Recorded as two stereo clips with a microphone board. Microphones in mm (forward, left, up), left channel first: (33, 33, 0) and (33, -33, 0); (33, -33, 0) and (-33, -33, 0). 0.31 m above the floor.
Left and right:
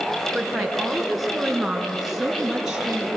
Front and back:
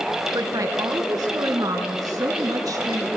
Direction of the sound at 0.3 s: Straight behind.